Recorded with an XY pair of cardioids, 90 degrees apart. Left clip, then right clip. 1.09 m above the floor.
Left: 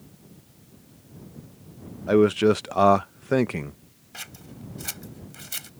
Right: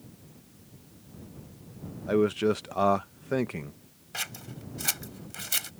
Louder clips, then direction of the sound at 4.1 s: Right 4 dB; 40° right.